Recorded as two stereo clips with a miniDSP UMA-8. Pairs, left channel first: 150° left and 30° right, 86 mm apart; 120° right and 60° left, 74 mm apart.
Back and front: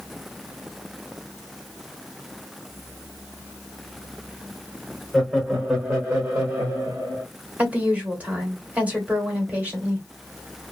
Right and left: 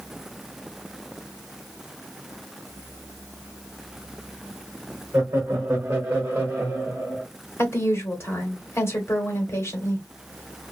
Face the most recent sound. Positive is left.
turn(degrees=-95)